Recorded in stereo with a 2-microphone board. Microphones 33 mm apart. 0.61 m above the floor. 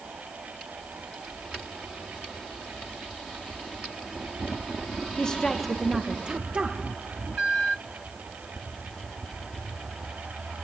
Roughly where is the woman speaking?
Left.